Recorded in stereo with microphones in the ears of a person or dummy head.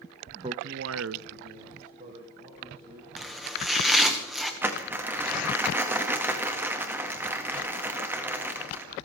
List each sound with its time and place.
0.4 s a man speaking: 20° right (ahead or behind), 0.8 m; by 3.1 s 35° right (ahead or behind), 3.5 m
3.2 s chopping: 5° right (ahead or behind), 1.8 m
4.6 s crumpling: 15° right (ahead or behind), 1.8 m